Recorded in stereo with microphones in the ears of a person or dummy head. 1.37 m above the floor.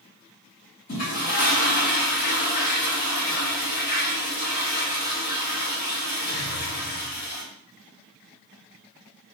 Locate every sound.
0.9 s a toilet flushing: 45° left (ahead or behind), 1.9 m